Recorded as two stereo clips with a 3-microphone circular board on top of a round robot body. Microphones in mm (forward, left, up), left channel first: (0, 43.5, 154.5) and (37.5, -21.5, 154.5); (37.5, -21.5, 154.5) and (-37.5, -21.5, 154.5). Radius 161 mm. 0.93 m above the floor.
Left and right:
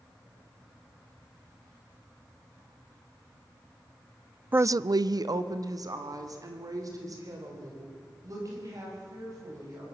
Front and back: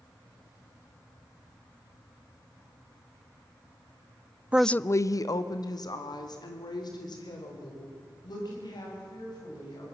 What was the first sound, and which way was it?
A woman speaking, 115° right.